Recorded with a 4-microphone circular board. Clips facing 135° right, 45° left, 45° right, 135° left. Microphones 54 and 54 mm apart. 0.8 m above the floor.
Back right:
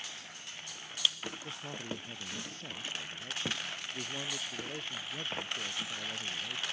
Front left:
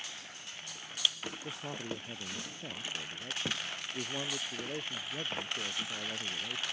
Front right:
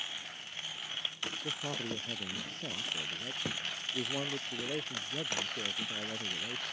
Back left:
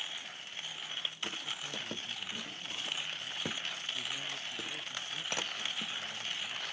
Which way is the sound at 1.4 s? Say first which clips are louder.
Front left 4 dB, front right 3 dB; 30° right.